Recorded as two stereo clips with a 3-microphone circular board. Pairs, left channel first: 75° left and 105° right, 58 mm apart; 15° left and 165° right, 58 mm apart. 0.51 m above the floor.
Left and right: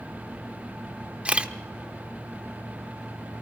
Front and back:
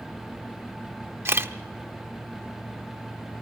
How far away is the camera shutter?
About 0.8 m.